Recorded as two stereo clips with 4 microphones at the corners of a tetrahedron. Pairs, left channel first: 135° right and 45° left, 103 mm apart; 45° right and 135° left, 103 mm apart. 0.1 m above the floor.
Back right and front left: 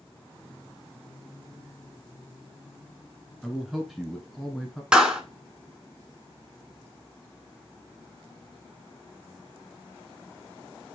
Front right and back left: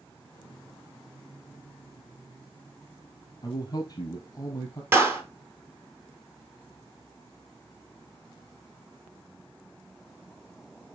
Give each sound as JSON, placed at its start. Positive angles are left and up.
{"t": 3.4, "sound": "a man speaking", "azimuth_deg": -45, "distance_m": 1.3}
{"t": 4.9, "sound": "a clap", "azimuth_deg": 120, "distance_m": 1.0}